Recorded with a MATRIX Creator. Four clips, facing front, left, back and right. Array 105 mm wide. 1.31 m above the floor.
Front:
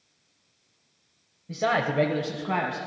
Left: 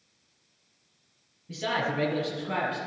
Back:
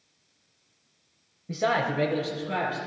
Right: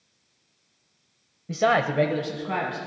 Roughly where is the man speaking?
Behind right.